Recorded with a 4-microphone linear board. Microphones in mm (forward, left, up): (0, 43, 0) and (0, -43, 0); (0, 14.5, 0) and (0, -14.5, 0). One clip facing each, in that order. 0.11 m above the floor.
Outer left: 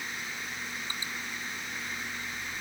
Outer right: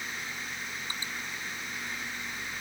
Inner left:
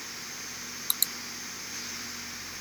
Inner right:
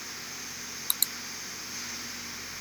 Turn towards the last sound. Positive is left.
No sound to turn to.